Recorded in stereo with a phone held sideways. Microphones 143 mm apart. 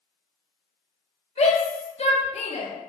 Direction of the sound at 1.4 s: 50° left (ahead or behind).